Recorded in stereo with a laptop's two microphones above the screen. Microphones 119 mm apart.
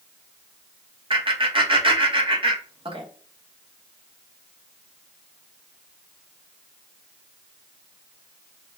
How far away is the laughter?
About 1.2 m.